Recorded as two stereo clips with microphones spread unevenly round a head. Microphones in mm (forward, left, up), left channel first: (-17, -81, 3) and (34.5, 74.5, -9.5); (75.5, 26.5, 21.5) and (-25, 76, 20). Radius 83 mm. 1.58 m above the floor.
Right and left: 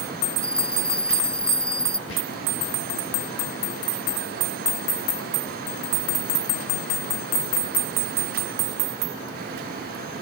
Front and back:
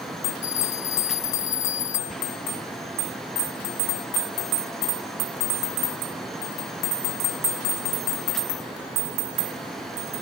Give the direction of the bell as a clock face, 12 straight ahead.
1 o'clock.